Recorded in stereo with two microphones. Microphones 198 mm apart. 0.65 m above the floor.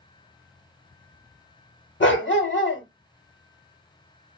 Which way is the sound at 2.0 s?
65° left (ahead or behind).